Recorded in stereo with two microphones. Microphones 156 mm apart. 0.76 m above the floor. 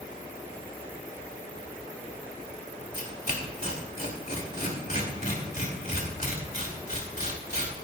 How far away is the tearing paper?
About 3 m.